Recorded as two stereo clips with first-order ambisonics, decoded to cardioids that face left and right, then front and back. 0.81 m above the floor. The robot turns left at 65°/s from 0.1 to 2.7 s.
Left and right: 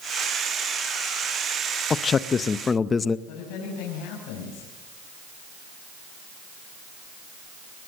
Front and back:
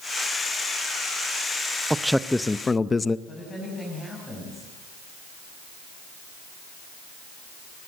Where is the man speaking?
105° left, 0.5 m; by 3.2 s 55° left, 0.5 m.